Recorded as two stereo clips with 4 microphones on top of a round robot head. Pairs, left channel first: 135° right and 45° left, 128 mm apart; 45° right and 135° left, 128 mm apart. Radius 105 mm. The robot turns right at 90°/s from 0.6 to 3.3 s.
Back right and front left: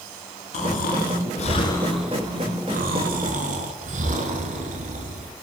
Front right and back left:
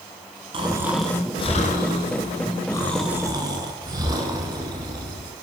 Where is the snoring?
170° right, 1.1 m; by 5.3 s 75° left, 1.1 m.